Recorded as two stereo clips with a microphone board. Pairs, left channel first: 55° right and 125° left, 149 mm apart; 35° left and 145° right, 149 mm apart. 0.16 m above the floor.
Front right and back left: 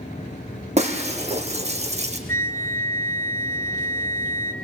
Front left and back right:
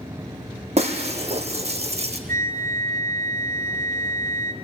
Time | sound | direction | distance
0.8 | breaking glass | 170° left | 1.5 m
2.3 | a flute | 130° right | 1.3 m